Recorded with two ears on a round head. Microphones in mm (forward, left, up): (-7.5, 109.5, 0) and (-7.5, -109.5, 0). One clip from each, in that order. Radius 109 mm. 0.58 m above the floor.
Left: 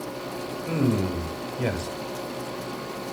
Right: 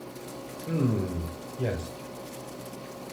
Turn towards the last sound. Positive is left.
turn(degrees=35)  # may be behind; listen again after turning